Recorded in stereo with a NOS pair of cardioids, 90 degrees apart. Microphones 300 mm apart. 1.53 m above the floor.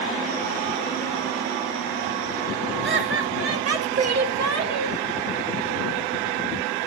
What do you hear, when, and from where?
2.8 s laughter: 40° right, 2 m; by 5.0 s 70° right, 2.5 m